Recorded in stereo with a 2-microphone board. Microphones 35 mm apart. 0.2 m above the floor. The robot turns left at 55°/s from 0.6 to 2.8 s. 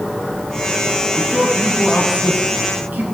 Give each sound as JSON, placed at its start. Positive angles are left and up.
{"t": 1.2, "sound": "a man speaking", "side_deg": 20, "distance_m": 3.5}